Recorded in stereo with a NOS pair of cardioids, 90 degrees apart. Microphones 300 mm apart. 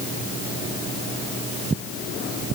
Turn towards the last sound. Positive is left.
No sound to turn to.